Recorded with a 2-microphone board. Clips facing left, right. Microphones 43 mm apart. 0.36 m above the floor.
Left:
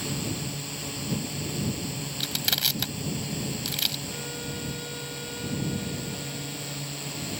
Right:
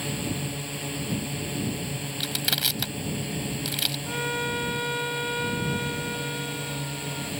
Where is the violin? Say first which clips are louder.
Right 8 dB; 70° right (ahead or behind).